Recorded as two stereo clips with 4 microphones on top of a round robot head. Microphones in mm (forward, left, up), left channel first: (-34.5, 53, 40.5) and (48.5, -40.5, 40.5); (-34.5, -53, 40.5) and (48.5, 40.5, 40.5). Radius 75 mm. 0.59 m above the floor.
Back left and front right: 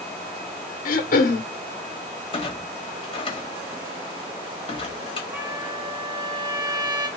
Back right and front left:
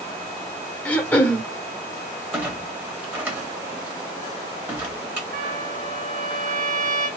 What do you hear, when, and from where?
0.8 s throat clearing: 150° left, 0.7 m
2.3 s a clunk: 115° left, 1.5 m
5.3 s a trumpet: 20° left, 2.5 m